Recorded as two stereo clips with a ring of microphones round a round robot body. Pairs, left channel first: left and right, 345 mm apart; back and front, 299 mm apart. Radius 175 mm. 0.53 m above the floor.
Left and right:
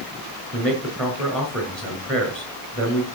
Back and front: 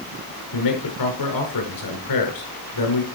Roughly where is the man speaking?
Behind.